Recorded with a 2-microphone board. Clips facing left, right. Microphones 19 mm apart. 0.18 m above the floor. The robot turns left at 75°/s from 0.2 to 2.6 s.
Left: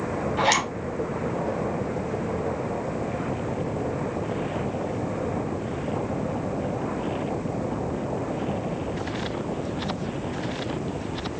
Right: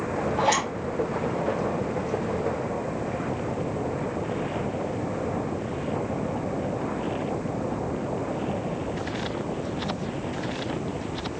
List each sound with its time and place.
0.4 s a zipper: 60° left (ahead or behind), 1.3 m